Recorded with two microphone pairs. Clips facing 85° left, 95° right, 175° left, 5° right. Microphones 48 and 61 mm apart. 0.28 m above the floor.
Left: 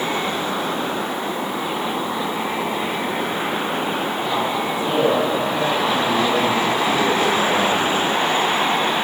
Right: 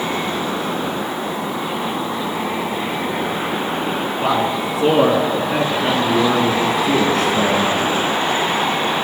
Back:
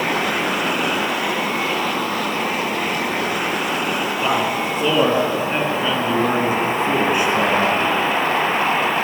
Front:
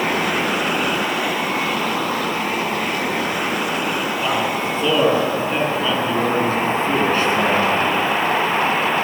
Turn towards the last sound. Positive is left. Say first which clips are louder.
# right 5 dB, back 2 dB
turn(degrees=-110)